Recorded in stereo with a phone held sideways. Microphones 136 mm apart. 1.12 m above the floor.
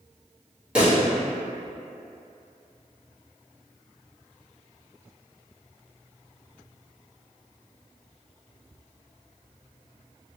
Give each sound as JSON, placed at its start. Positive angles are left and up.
{"t": 0.8, "sound": "a pop", "side_deg": -10, "distance_m": 1.6}